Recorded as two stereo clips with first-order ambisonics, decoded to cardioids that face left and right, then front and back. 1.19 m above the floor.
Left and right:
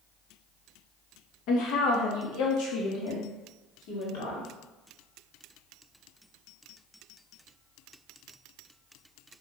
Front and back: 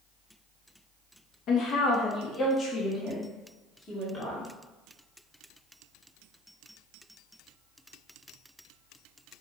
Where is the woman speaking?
50° left, 1.1 m; by 4.5 s 75° left, 3 m.